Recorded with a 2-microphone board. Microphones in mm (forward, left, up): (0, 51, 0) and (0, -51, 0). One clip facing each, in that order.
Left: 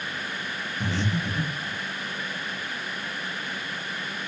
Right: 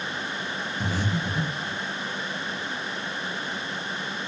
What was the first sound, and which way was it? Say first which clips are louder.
Breathing: left 1 dB; 10° right (ahead or behind).